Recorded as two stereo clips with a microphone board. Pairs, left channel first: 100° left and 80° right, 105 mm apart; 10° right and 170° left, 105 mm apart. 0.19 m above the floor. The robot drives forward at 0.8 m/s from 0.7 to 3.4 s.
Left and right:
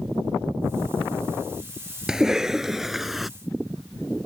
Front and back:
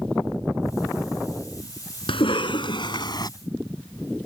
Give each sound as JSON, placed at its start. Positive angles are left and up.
{"t": 2.1, "sound": "a cough", "azimuth_deg": 5}